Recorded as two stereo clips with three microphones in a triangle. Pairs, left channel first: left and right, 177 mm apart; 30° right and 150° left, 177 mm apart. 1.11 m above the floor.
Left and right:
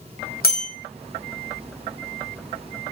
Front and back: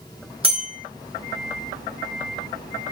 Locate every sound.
0.4 s a bell: 100° left, 0.9 m